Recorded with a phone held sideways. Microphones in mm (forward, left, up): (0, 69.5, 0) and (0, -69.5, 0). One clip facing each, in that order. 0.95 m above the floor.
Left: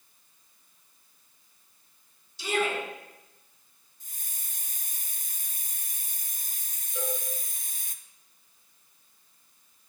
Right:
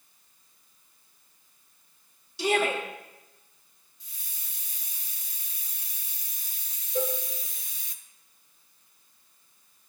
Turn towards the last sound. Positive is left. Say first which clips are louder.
# right 6 dB
turn(degrees=-45)  # may be behind; listen again after turning